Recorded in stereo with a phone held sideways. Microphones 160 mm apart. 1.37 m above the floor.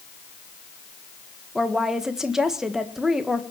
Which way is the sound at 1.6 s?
5° right (ahead or behind).